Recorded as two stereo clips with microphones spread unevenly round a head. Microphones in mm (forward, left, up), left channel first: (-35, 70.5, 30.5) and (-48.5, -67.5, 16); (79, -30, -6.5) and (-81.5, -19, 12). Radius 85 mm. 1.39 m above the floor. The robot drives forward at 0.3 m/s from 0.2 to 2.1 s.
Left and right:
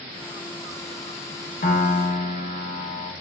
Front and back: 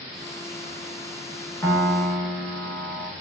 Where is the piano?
70° left, 0.5 m; by 3.1 s 95° left, 0.5 m.